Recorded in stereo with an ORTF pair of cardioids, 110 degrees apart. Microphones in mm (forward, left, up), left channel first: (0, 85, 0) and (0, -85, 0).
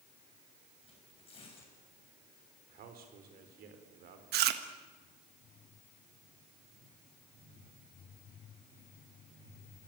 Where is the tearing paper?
35° left, 7 m.